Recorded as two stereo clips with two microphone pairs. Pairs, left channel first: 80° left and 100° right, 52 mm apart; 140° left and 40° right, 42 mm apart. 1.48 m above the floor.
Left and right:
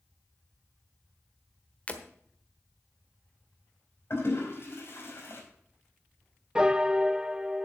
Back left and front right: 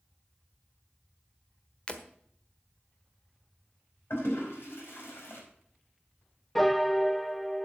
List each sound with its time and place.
1.9 s breaking glass: 110° left, 1.3 m
4.1 s a toilet flushing: 120° left, 5 m
6.5 s a piano: 135° right, 0.5 m